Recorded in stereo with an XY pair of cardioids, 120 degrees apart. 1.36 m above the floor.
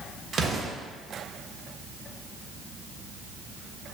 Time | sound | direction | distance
0.3 | an explosion | 35° right | 1.3 m